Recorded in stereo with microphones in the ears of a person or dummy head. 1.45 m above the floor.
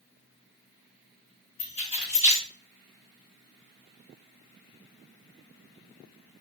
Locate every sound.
1.6 s keys jangling: 55° left (ahead or behind), 1.2 m